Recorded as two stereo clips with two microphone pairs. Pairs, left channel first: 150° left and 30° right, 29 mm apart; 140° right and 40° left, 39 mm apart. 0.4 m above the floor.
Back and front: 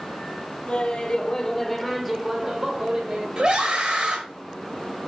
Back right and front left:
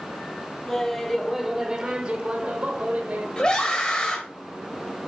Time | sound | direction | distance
0.7 | laughter | 150° left | 1.0 m
3.4 | a scream | 75° right | 1.4 m